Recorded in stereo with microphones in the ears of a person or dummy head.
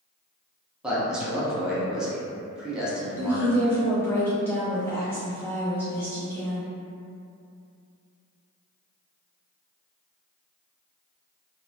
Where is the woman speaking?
5° left (ahead or behind), 0.7 m.